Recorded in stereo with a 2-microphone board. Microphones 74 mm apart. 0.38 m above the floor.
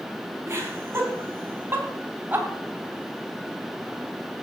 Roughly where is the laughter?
Right.